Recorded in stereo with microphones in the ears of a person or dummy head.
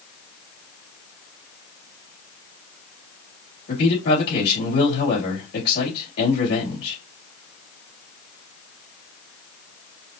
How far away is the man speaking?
About 3 m.